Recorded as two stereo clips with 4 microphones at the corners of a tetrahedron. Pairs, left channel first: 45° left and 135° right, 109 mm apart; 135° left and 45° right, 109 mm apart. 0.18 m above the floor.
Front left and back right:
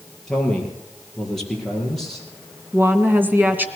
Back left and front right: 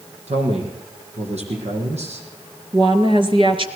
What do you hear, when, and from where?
0.3 s a man speaking: 40° right, 6 m
2.7 s a woman speaking: 65° right, 2.5 m